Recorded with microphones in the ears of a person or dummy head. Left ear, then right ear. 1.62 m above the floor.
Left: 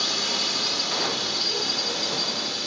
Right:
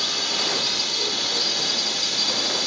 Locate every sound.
0.0 s a drone: centre (ahead or behind); by 2.7 s 20° right (ahead or behind)